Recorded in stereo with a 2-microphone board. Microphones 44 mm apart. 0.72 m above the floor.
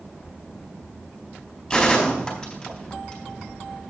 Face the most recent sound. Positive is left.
turn(degrees=20)  # may be behind; listen again after turning